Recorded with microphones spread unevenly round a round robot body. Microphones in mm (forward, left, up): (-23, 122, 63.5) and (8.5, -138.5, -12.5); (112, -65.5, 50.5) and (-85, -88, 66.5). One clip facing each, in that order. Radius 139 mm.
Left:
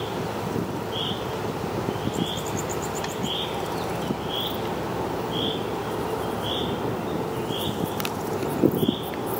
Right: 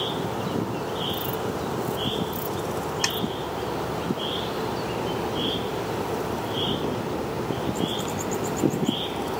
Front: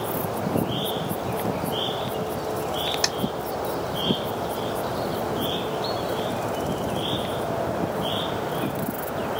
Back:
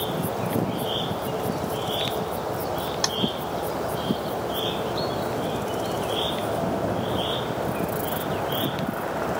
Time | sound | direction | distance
3.0 | a snare drum | 60° right | ?